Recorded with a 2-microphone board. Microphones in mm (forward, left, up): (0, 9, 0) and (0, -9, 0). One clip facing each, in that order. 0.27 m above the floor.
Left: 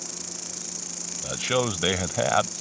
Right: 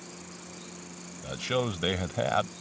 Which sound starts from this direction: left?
An insect, at 0.0 s.